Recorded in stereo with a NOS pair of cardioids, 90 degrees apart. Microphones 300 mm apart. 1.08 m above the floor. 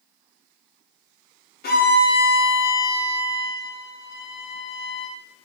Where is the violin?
30° left, 1.2 m.